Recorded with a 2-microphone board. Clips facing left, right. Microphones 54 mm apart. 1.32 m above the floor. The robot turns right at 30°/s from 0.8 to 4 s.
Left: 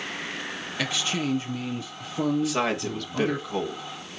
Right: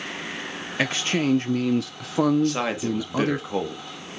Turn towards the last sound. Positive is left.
turn(degrees=-140)